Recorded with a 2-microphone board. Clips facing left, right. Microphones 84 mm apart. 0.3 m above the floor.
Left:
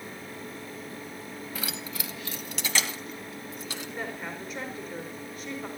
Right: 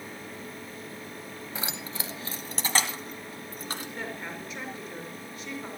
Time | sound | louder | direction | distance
1.6 | keys jangling | right 2 dB | 25° right (ahead or behind) | 1.2 m
4.0 | a woman speaking | left 1 dB | centre (ahead or behind) | 5.5 m